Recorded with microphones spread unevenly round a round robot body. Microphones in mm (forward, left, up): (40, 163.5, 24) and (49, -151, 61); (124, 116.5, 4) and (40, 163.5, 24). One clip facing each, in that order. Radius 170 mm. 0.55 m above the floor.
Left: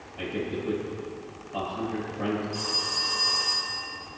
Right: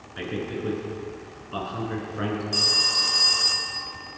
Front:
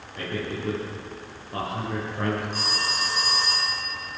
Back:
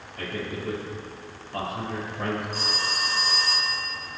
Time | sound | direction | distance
0.1 | a man speaking | 95° right | 8 m
2.5 | a phone ringing | 120° right | 2.5 m